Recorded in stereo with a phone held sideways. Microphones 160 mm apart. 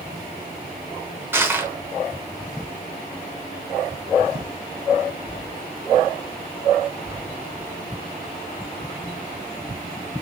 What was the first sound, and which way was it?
Crushing, 15° right (ahead or behind).